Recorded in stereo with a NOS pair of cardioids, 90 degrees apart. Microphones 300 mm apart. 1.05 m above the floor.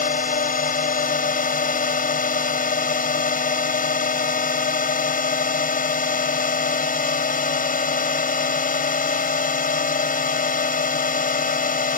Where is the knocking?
I don't hear knocking.